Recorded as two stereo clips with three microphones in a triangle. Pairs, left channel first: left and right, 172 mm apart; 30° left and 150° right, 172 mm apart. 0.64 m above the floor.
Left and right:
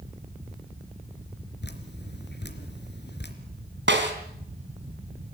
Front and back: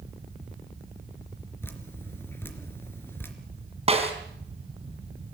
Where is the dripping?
110° left, 3 m.